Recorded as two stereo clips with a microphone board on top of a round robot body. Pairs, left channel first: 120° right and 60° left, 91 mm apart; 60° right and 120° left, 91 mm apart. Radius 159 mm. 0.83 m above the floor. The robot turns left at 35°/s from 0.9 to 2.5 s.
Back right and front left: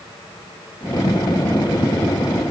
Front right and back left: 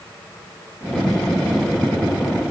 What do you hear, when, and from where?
Only background noise.